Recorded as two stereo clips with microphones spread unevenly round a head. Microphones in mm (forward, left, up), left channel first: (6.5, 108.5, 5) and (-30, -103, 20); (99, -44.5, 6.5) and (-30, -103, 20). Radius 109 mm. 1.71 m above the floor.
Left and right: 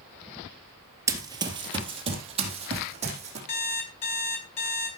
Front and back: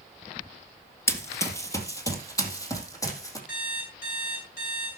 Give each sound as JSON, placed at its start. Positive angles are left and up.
{"t": 1.1, "sound": "running footsteps", "azimuth_deg": -40, "distance_m": 2.0}
{"t": 3.5, "sound": "an alarm clock", "azimuth_deg": 80, "distance_m": 5.0}